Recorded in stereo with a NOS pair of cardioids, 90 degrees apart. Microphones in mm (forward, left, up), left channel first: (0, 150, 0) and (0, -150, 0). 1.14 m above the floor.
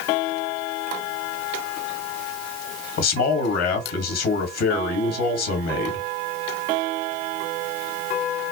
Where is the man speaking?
60° left, 1.7 m.